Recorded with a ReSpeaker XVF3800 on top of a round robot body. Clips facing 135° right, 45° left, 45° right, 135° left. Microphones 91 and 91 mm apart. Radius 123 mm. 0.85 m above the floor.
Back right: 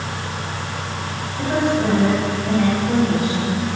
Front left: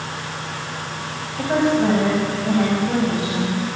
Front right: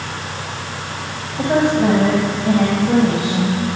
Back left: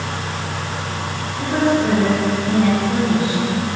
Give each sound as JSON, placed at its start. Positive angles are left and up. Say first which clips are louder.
{"t": 1.4, "sound": "a woman speaking", "louder": "front left 1 dB, front right 2 dB", "azimuth_deg": -20, "distance_m": 4.5}